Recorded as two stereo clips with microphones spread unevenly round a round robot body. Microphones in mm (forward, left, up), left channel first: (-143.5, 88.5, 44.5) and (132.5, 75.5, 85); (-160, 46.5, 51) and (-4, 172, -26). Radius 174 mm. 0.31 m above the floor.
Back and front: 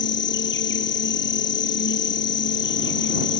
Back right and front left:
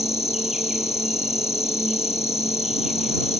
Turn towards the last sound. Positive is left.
turn(degrees=130)